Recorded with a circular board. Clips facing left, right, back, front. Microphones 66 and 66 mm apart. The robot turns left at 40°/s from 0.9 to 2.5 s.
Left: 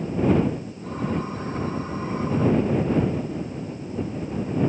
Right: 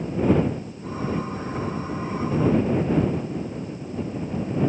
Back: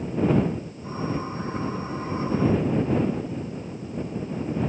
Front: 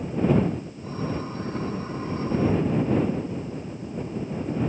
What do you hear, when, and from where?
Only background noise.